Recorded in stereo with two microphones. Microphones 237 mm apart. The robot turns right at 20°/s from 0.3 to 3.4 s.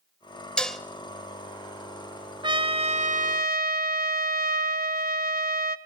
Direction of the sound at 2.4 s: 20° right (ahead or behind).